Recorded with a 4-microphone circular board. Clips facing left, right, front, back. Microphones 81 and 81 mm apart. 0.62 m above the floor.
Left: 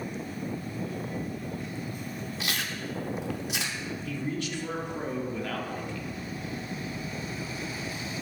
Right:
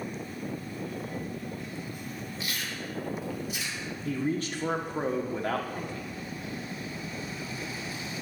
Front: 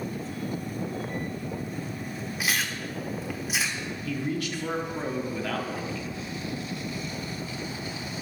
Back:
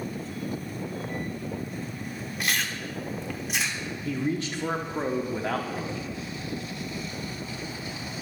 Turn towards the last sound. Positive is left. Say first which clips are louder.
# right 5 dB, back 2 dB
turn(degrees=-130)